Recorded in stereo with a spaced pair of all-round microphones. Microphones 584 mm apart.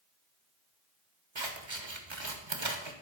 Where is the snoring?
No snoring in this recording.